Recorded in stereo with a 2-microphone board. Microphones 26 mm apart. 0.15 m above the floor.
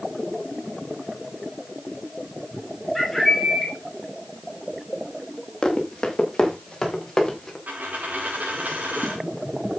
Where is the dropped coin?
85° right, 5 m.